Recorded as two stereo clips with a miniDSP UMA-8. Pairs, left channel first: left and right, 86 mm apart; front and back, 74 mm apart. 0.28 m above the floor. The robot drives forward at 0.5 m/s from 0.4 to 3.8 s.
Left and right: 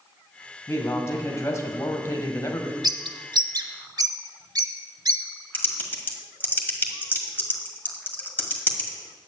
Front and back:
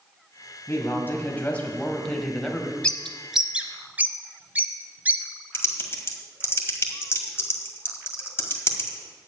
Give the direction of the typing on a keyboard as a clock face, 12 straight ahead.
11 o'clock.